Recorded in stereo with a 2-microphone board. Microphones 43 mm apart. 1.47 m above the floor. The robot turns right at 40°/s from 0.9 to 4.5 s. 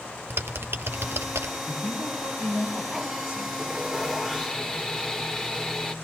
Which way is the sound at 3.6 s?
15° right.